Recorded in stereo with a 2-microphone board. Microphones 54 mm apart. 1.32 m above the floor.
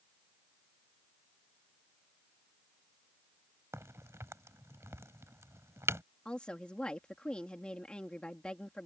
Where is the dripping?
I don't hear dripping.